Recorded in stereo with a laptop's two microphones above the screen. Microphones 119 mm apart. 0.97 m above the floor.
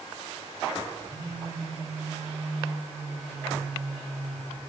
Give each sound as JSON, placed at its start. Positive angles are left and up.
{"t": 1.1, "sound": "a phone buzzing", "side_deg": 45, "distance_m": 5.5}